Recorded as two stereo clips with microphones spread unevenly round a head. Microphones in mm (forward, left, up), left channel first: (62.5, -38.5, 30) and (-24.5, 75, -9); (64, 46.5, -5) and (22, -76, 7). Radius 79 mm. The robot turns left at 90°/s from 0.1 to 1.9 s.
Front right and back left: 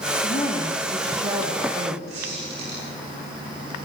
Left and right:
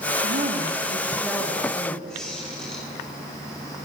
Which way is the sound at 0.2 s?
95° right.